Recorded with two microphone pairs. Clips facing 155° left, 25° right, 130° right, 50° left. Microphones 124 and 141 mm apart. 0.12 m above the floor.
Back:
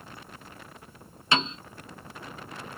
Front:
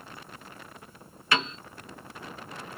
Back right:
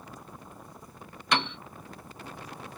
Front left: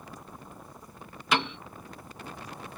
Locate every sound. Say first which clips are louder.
1.3 s a piano: back 1 dB, front left 1 dB; 140° left, 0.6 m